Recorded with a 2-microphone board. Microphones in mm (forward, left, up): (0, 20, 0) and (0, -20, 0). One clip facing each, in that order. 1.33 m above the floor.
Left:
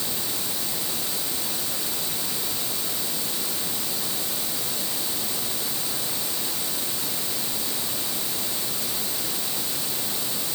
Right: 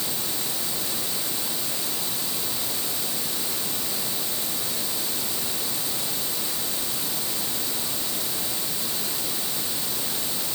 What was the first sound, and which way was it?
Only background noise.